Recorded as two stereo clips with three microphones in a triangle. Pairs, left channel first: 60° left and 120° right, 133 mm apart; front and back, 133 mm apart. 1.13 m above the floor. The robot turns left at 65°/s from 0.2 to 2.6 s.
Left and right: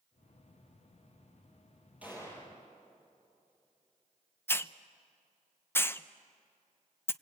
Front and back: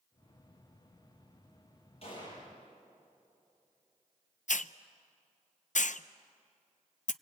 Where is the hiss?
15° right, 0.6 m.